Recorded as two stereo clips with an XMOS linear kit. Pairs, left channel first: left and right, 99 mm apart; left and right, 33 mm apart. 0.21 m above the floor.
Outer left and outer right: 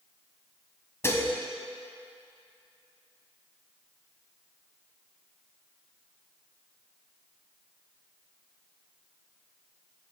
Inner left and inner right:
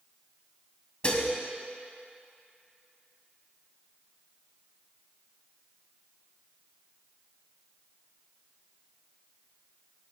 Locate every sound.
1.0 s dishes clattering: 30° left (ahead or behind), 0.8 m